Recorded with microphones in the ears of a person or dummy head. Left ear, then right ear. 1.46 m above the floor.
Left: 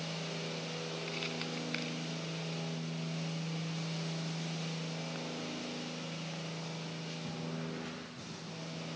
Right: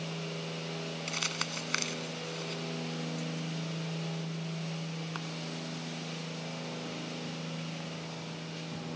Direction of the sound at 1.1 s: 55° right (ahead or behind).